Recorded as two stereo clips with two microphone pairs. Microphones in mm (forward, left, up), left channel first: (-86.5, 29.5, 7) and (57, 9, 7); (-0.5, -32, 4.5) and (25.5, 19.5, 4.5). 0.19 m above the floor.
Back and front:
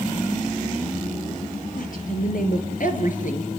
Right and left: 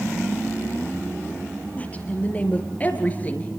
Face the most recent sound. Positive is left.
turn(degrees=-175)